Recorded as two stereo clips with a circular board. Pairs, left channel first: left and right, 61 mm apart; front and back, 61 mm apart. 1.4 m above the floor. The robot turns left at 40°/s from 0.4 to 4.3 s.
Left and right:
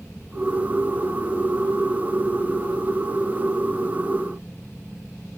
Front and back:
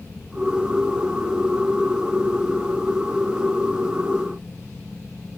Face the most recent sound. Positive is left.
No sound to turn to.